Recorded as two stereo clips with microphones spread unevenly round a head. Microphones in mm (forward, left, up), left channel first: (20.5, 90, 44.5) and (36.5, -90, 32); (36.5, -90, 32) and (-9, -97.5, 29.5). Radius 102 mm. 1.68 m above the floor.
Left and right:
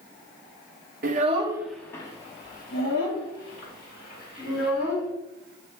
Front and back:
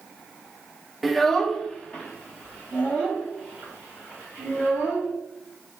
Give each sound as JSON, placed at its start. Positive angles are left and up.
{"t": 1.0, "sound": "a child speaking", "azimuth_deg": -75, "distance_m": 0.6}